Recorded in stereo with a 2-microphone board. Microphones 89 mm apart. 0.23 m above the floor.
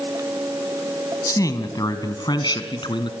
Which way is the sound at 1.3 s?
35° left (ahead or behind).